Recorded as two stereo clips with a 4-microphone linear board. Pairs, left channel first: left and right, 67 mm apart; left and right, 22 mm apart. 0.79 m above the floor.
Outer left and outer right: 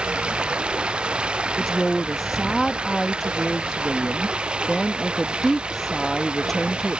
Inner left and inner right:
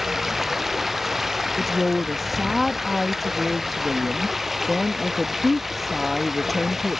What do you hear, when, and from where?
0.0 s running water: 15° right (ahead or behind)
1.6 s a woman speaking: 5° left (ahead or behind)